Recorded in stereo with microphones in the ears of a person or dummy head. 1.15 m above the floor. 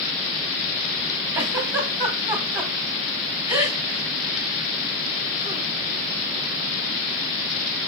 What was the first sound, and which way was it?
A giggle, 20° right (ahead or behind).